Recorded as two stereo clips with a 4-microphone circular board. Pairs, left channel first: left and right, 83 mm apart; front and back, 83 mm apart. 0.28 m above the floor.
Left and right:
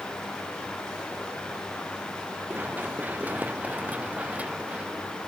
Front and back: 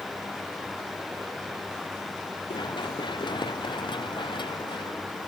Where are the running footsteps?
20° right; by 5.3 s 15° right.